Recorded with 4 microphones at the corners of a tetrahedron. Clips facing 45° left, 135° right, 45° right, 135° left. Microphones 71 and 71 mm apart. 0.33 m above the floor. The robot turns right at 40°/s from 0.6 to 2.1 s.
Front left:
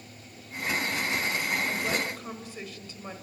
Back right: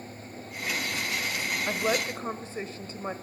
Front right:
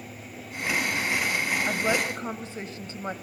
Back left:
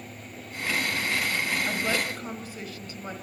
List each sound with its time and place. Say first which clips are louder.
1.7 s a woman speaking: back right 2 dB, front right 2 dB; 110° right, 1.7 m; by 3.1 s 95° right, 1.7 m